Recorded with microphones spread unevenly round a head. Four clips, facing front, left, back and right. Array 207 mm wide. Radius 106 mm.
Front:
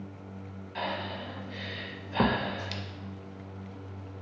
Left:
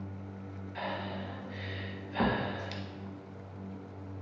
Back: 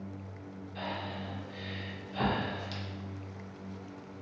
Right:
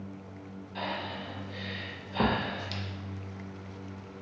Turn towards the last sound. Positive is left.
turn(degrees=-15)